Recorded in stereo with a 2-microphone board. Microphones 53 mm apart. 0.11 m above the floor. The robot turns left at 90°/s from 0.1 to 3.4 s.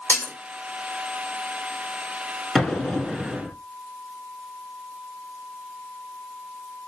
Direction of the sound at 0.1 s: 45° left (ahead or behind).